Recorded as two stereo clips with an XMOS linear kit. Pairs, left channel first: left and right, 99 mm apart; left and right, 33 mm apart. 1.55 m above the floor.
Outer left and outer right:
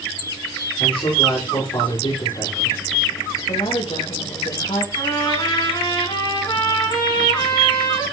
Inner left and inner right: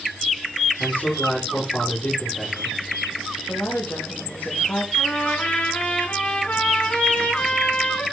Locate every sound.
0.8 s a man speaking: 55° left (ahead or behind), 5.5 m
3.5 s a woman speaking: 85° left, 3 m
5.0 s a trumpet: 50° left (ahead or behind), 5 m